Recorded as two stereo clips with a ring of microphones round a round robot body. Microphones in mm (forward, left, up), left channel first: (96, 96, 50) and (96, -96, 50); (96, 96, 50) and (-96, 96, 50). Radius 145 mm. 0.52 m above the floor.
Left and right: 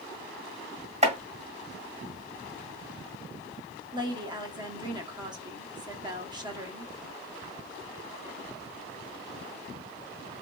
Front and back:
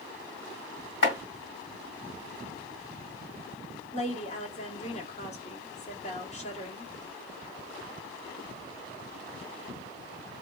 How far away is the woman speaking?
About 1.2 m.